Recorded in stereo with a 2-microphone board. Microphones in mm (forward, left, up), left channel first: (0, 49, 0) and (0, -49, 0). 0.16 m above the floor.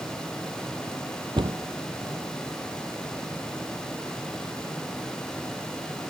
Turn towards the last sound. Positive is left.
turn(degrees=-55)  # may be behind; listen again after turning